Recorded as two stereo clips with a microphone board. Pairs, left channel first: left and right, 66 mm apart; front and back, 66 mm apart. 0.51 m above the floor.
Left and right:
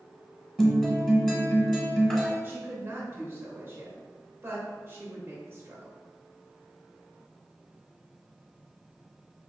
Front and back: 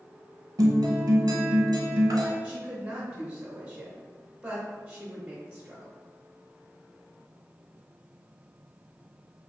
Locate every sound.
0.6 s a guitar: 170° left, 0.7 m
2.4 s a woman speaking: 115° right, 0.8 m